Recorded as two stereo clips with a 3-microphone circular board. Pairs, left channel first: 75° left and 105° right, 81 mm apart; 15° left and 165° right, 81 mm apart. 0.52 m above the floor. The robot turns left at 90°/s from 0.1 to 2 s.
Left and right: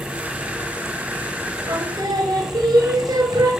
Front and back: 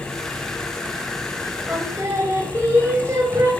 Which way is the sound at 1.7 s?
85° right.